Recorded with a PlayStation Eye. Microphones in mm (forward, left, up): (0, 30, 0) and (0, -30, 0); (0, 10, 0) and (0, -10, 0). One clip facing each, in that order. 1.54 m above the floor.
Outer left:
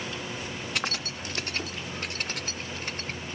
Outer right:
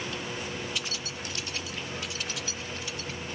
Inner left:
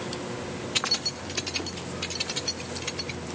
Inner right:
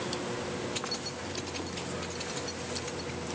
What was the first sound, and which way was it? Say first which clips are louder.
Keys jangling: outer left 4 dB, inner left 8 dB; 65° left (ahead or behind).